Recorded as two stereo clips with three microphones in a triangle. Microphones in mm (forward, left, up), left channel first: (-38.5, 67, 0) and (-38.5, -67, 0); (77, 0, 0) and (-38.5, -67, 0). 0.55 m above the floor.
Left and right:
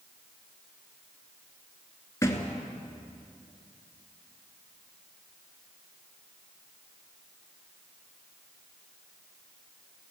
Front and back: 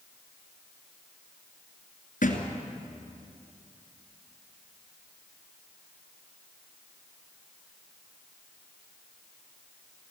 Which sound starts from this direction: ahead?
A thud, at 2.2 s.